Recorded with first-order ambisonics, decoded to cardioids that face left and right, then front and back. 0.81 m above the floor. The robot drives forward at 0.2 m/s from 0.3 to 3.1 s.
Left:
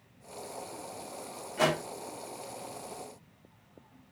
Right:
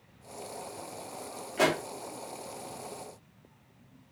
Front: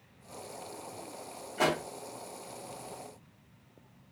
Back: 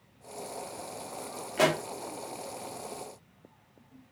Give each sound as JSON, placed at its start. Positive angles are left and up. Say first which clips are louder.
{"t": 1.6, "sound": "a pop", "louder": "right 1 dB, back 3 dB", "azimuth_deg": -165, "distance_m": 0.9}